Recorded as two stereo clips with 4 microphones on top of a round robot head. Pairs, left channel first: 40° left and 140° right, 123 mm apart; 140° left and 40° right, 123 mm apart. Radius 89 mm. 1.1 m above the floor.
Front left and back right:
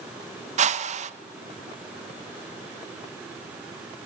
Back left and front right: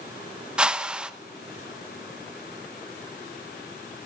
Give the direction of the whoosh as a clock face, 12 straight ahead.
4 o'clock.